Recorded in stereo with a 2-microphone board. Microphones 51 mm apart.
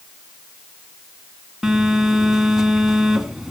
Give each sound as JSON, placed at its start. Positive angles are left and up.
{"t": 1.6, "sound": "a phone buzzing", "side_deg": -5, "distance_m": 1.6}